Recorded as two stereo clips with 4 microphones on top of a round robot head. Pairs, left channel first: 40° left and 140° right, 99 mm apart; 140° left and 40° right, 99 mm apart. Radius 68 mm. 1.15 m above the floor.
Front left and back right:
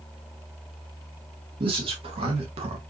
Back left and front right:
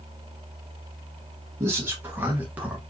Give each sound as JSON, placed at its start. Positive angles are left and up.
{"t": 1.6, "sound": "a man speaking", "azimuth_deg": -105, "distance_m": 2.0}